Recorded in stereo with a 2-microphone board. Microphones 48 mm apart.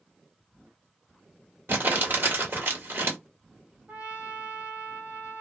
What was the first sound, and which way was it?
Crumpling, 50° right (ahead or behind).